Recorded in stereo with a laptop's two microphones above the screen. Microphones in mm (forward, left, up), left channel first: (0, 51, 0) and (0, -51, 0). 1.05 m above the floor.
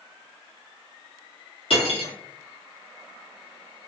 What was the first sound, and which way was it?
Cutlery clinking, 65° left (ahead or behind).